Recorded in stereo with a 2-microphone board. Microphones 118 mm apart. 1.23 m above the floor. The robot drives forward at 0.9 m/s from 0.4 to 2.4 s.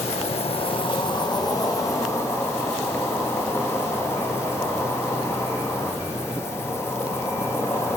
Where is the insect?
60° left (ahead or behind), 1.1 m; by 8.0 s 20° left (ahead or behind), 2.5 m.